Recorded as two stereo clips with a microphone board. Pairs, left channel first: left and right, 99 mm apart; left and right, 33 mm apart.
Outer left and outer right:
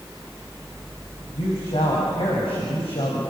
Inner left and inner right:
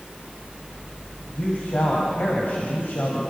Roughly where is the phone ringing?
No phone ringing in this recording.